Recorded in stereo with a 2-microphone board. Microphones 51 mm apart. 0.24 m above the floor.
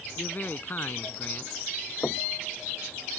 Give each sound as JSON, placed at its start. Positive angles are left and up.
{"t": 0.2, "sound": "a man speaking", "side_deg": 40}
{"t": 2.0, "sound": "knocking", "side_deg": 40}